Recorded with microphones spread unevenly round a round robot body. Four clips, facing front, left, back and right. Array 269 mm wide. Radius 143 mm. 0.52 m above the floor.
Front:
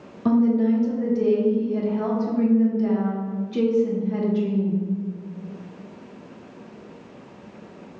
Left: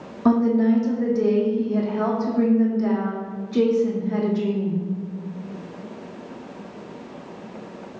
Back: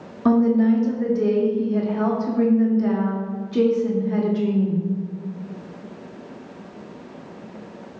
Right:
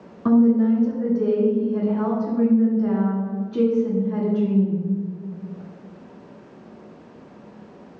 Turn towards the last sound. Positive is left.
turn(degrees=135)